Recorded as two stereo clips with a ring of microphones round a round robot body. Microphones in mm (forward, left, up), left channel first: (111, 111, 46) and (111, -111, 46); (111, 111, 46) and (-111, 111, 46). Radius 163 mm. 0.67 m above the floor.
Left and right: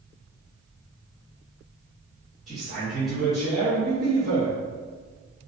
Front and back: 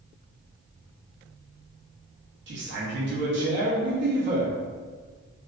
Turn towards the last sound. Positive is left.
turn(degrees=180)